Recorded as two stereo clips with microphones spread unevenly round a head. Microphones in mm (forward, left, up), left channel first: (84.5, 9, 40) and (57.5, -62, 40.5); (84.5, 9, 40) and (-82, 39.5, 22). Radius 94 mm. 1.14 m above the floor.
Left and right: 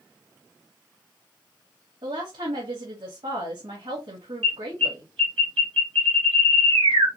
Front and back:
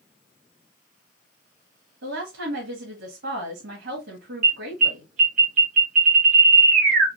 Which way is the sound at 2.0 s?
155° right.